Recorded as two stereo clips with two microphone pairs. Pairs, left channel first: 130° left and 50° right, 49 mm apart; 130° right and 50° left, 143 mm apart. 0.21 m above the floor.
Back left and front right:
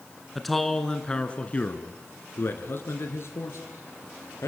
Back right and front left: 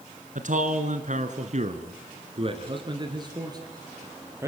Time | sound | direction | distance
0.3 | a man speaking | 40° left | 2.5 m